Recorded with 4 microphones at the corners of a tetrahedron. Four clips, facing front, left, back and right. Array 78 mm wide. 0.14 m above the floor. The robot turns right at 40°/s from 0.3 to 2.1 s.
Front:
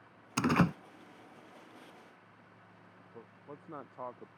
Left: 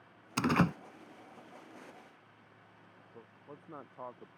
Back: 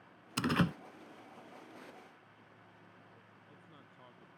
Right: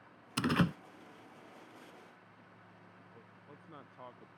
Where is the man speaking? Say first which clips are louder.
Left 8 dB, front 9 dB; 25° left.